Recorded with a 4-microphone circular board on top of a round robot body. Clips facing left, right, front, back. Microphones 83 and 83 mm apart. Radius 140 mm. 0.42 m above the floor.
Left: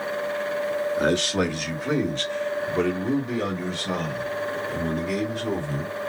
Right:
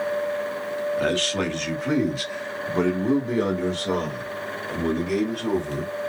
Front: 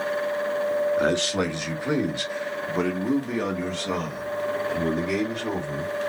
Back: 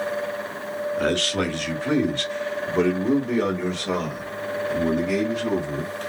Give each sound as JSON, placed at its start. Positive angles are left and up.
{"t": 1.0, "sound": "a man speaking", "azimuth_deg": 50, "distance_m": 1.4}